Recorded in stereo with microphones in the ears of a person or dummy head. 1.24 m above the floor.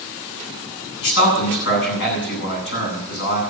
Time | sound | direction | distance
1.0 | a man speaking | 60° left (ahead or behind) | 9 m